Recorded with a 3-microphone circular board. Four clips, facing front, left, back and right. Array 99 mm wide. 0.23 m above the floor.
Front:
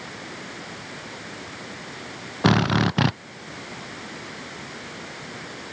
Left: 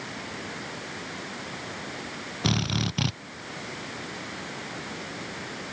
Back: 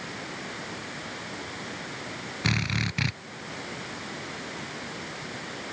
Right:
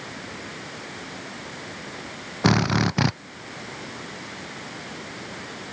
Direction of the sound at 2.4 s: 30° right.